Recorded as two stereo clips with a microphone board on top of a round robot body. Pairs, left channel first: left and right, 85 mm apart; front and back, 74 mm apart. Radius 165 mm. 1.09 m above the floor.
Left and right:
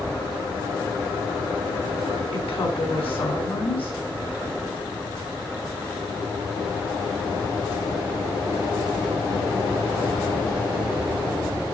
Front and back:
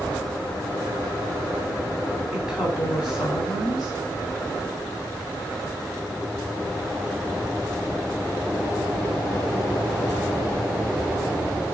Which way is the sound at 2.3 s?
100° left.